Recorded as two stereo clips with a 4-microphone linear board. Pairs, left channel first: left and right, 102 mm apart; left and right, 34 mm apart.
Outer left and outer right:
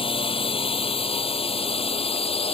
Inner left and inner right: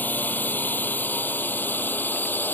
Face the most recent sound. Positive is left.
turn(degrees=75)  # may be behind; listen again after turning